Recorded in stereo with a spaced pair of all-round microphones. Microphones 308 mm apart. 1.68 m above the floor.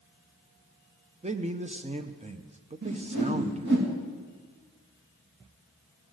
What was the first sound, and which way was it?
A man speaking, 20° right (ahead or behind).